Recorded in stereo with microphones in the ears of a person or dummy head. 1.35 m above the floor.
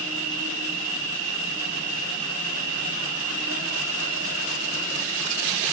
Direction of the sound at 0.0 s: 80° right.